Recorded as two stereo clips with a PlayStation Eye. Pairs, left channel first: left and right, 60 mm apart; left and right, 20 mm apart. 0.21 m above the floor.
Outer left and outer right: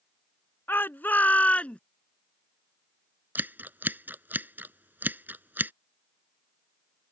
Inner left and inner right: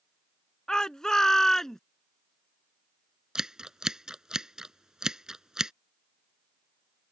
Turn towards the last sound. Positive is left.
turn(degrees=-35)  # may be behind; listen again after turning